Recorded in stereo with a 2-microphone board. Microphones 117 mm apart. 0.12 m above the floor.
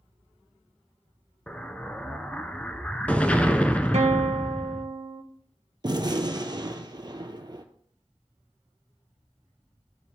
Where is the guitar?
60° right (ahead or behind), 0.9 m.